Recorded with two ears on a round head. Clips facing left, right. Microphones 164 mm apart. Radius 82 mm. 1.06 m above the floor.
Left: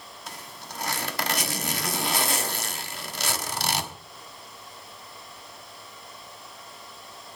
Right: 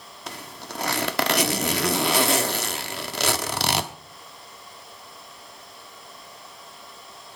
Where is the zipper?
55° right (ahead or behind), 1.1 m.